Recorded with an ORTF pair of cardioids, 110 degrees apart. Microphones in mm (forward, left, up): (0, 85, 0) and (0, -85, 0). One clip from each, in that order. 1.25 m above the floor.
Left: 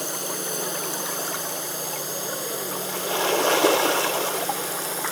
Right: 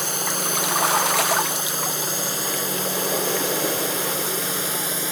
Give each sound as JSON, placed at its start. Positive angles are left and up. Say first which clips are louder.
{"t": 0.0, "sound": "a drone", "louder": "right 5 dB", "azimuth_deg": -35}